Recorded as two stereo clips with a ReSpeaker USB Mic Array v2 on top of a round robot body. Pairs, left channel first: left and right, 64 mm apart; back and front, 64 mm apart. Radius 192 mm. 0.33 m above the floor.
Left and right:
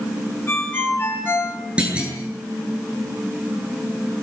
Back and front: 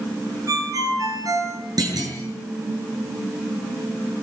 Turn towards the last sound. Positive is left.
turn(degrees=-15)